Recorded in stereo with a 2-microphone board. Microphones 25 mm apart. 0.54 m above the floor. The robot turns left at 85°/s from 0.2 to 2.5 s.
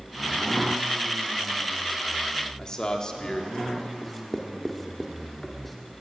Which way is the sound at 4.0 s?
5° left (ahead or behind).